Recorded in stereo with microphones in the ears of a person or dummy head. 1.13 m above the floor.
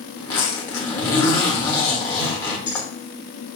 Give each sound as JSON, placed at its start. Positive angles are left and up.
{"t": 0.2, "sound": "a zipper", "side_deg": 20, "distance_m": 1.2}